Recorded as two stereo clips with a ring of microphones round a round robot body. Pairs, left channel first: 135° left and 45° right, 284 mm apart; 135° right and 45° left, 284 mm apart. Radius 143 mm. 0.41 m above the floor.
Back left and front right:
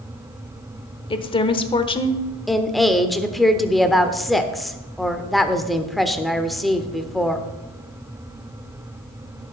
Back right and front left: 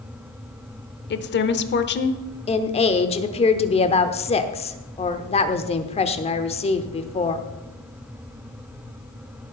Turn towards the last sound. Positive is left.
turn(degrees=-135)